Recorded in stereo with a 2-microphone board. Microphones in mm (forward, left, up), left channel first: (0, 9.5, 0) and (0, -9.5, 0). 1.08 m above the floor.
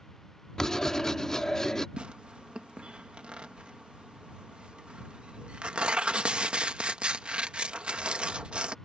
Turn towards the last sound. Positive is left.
turn(degrees=-70)  # may be behind; listen again after turning